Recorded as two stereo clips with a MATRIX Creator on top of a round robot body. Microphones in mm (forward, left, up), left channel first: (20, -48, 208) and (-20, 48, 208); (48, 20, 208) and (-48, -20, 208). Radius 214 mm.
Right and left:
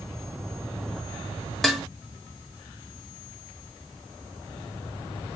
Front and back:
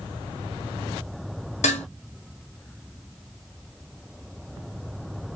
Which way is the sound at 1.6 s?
20° left.